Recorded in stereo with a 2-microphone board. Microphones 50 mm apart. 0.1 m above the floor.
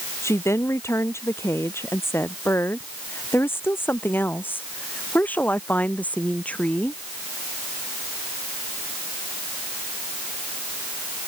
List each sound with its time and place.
0.2 s a woman speaking: 65° left (ahead or behind); by 7.0 s 25° left (ahead or behind)